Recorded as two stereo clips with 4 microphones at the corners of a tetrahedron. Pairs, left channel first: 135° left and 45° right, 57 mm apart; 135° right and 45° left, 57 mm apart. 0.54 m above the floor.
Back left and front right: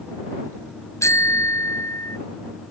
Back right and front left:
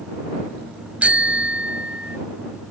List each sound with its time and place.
1.0 s a bicycle bell: 110° left